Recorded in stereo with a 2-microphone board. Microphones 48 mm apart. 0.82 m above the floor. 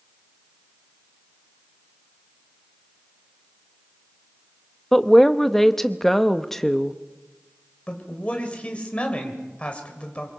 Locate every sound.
4.9 s a woman speaking: 5° left (ahead or behind), 0.8 m
7.9 s a man speaking: 25° left (ahead or behind), 3 m